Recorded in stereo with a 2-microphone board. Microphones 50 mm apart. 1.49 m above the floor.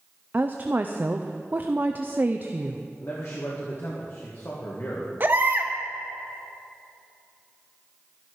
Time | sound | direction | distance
0.3 | a woman speaking | 35° right (ahead or behind) | 0.6 m
3.0 | a man speaking | 60° left (ahead or behind) | 2 m
5.2 | a baby crying | 45° right (ahead or behind) | 1.3 m